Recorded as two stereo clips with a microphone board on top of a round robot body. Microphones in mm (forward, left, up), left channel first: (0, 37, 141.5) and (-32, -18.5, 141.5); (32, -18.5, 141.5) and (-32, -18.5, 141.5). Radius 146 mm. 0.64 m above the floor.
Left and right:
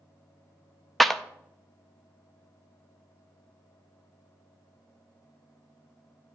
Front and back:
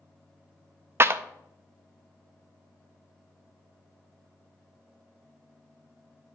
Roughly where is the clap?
Behind left.